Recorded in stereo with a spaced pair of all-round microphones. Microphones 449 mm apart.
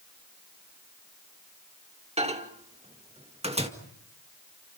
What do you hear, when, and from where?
2.2 s a microwave: 15° right (ahead or behind), 1.8 m